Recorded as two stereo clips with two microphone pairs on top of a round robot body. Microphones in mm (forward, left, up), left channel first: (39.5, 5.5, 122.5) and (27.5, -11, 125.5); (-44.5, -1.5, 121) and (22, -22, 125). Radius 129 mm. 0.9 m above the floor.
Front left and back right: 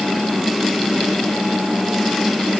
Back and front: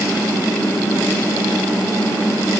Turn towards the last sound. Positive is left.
No sound to turn to.